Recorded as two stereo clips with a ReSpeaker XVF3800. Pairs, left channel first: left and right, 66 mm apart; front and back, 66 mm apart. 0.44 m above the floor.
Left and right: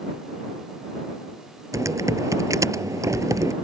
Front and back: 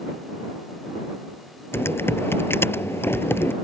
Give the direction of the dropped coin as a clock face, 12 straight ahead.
No dropped coin in this recording.